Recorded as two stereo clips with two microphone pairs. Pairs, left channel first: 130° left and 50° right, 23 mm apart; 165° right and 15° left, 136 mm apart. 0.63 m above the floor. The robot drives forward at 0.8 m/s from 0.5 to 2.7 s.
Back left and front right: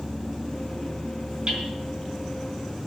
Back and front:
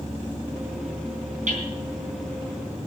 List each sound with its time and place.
1.5 s hammering: 5° right, 4 m